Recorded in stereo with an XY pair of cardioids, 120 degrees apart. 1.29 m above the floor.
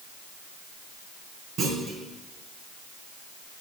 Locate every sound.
1.6 s a clunk: 65° right, 3.5 m